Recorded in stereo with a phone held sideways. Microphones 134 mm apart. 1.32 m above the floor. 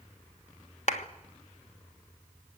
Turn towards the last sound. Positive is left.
turn(degrees=55)  # may be behind; listen again after turning